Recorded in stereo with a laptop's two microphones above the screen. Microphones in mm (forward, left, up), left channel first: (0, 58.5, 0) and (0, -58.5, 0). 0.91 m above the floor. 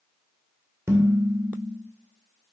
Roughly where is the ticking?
No ticking in this recording.